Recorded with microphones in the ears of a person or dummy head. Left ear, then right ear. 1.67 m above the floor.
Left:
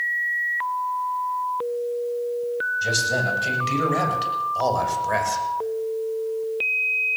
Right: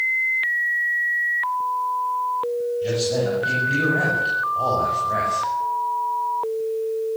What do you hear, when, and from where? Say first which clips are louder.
2.8 s a man speaking: left 2 dB; 80° left, 9.5 m; by 5.4 s 70° left (ahead or behind), 7 m